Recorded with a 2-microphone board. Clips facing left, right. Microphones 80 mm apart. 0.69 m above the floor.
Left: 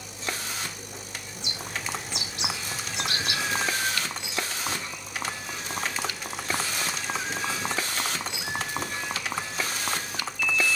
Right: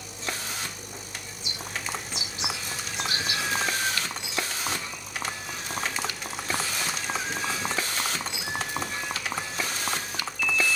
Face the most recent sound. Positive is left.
turn(degrees=75)  # may be behind; listen again after turning